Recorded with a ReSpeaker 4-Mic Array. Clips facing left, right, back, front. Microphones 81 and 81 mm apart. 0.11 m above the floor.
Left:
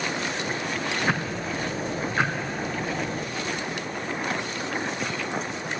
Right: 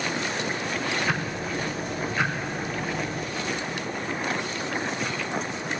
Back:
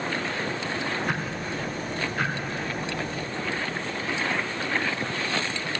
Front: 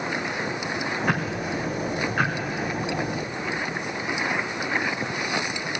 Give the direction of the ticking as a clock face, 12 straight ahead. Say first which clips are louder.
Left 1 dB, front 4 dB; 11 o'clock.